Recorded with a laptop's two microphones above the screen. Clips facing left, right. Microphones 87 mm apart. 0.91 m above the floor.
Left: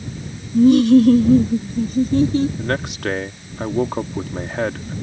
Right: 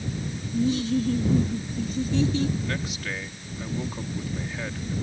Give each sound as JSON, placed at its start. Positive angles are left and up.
{"t": 0.5, "sound": "laughter", "side_deg": 50}
{"t": 2.6, "sound": "a man speaking", "side_deg": 65}